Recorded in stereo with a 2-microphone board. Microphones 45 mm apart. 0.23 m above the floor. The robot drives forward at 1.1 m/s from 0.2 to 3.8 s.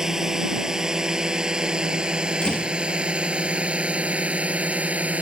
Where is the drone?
10° right (ahead or behind); by 5.2 s 30° right (ahead or behind).